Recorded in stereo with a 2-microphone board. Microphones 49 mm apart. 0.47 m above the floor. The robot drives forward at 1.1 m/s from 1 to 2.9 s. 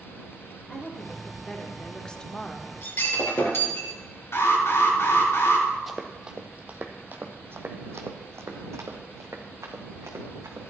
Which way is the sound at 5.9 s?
Centre (ahead or behind).